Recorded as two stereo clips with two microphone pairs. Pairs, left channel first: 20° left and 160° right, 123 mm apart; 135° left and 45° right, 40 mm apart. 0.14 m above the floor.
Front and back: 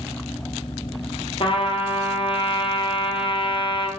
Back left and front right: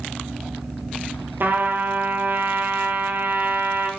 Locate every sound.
1.4 s a trumpet: 20° right, 1.1 m